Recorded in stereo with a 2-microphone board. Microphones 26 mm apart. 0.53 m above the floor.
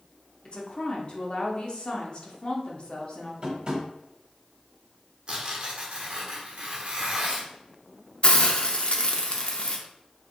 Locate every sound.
0.5 s a woman speaking: 40° left (ahead or behind), 0.9 m
3.4 s tapping: 40° right (ahead or behind), 1.2 m
5.3 s tearing paper: 45° right (ahead or behind), 1.1 m
8.2 s a hiss: 45° left (ahead or behind), 0.6 m